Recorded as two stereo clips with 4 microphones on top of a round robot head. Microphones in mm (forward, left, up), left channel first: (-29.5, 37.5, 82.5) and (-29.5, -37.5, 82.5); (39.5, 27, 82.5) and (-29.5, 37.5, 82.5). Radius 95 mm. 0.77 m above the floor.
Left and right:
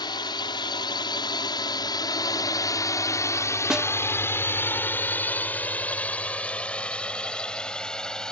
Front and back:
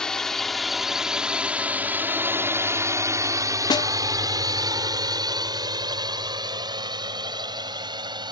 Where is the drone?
70° left; by 8.3 s 170° left.